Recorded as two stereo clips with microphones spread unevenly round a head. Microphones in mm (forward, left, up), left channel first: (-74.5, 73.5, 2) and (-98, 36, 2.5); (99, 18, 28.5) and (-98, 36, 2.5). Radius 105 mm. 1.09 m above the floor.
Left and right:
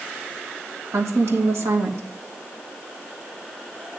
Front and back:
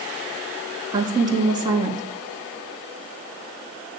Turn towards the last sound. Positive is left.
turn(degrees=-120)